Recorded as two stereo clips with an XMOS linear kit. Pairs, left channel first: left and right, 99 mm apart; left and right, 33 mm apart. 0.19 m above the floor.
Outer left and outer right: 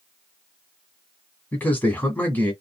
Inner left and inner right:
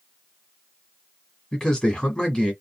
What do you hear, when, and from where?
1.5 s a man speaking: 20° left (ahead or behind), 1.3 m